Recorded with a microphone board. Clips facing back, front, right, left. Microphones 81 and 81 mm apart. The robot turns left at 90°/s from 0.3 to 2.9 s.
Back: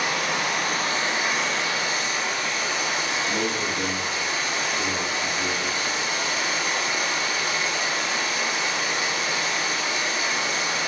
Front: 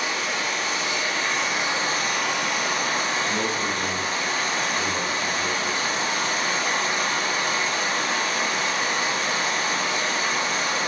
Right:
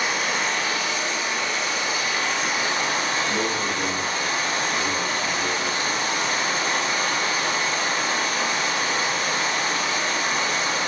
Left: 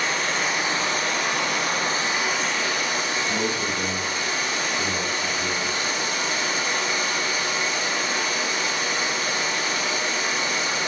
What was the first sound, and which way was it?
Running water, 175° right.